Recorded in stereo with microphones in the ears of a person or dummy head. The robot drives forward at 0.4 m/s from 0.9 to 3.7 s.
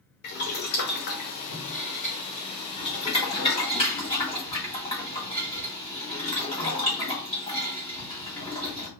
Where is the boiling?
55° left (ahead or behind), 1.1 m; by 8.9 s 30° left (ahead or behind), 1.9 m.